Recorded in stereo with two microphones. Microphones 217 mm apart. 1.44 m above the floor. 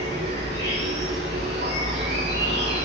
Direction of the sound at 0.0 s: 50° right (ahead or behind).